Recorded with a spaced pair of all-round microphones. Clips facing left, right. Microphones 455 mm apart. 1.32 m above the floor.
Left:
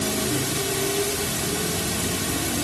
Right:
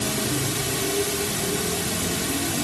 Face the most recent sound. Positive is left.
No sound to turn to.